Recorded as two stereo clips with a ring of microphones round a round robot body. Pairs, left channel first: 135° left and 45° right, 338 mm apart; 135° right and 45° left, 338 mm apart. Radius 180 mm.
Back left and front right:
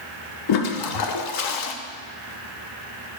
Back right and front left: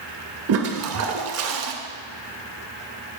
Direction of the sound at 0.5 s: 95° left.